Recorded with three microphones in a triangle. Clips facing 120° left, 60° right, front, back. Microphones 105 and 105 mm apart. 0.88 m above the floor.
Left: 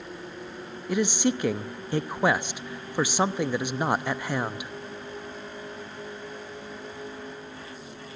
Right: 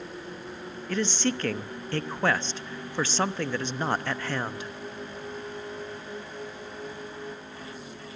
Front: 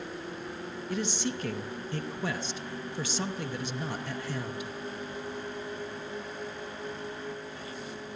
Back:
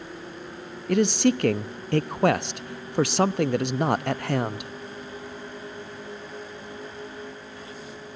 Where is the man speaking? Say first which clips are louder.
Left 3 dB, back 13 dB; 165° right, 0.7 m.